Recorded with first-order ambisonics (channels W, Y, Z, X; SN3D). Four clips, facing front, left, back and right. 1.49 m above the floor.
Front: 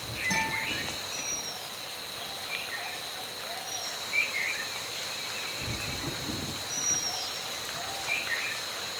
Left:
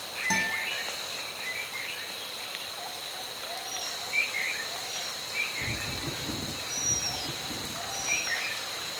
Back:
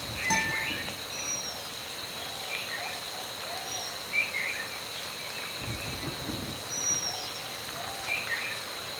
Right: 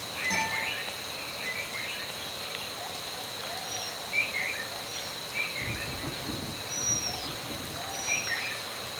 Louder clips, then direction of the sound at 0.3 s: Left 2 dB, back 2 dB; 140° left.